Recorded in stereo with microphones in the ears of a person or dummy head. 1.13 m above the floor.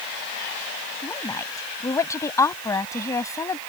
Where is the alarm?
No alarm in this recording.